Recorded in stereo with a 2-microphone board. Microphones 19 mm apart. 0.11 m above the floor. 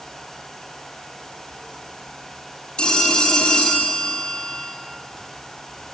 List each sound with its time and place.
2.8 s a phone ringing: 60° left (ahead or behind), 2.0 m